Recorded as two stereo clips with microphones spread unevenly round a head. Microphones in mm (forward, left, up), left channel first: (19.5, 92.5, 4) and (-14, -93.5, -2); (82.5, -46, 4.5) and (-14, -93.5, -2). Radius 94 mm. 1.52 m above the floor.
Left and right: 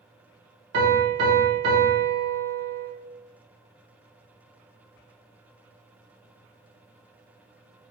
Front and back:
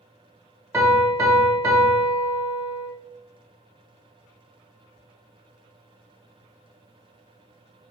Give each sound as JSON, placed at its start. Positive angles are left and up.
{"t": 0.7, "sound": "a piano", "azimuth_deg": -90, "distance_m": 1.2}